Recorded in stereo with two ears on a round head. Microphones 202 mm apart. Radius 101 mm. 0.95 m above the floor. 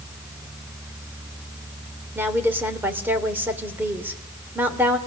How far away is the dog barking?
I don't hear a dog barking.